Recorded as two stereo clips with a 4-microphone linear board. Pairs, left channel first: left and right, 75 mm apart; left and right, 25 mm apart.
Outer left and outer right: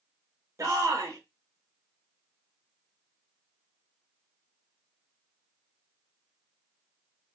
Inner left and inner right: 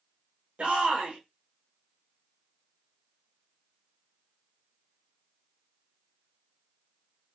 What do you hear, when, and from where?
0.6 s a shout: 45° right (ahead or behind), 0.9 m